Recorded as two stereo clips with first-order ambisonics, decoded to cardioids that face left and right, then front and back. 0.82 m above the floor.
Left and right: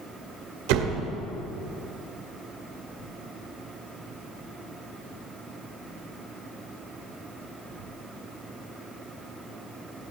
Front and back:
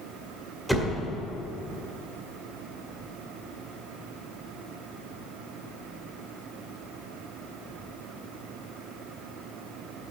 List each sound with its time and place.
0.7 s a door slam: 95° right, 1.7 m